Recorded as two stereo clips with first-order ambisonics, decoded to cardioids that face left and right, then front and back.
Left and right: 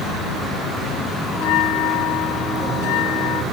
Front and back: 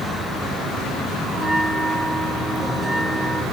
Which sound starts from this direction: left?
A bell, at 1.3 s.